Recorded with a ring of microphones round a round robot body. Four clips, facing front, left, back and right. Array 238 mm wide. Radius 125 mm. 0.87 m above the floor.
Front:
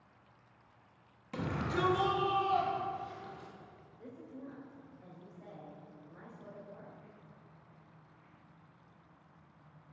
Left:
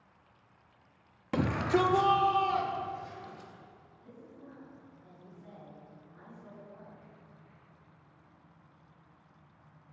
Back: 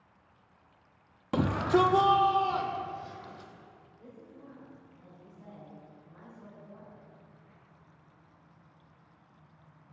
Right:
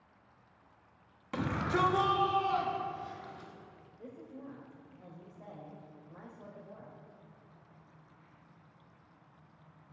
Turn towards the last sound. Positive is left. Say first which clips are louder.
# right 5 dB, front 3 dB
turn(degrees=-75)